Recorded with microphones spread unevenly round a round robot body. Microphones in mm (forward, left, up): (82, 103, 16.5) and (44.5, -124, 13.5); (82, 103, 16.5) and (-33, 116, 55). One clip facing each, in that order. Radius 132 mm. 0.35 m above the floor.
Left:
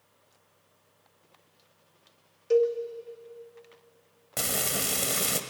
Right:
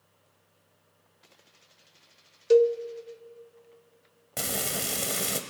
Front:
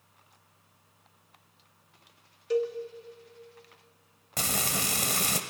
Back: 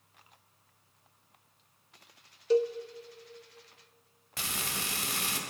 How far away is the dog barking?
No dog barking in this recording.